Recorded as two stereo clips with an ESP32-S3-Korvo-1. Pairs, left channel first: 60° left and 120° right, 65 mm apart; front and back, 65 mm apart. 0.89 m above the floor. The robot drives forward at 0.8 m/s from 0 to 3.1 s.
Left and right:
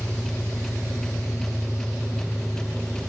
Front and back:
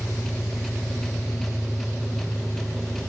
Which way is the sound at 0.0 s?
50° left.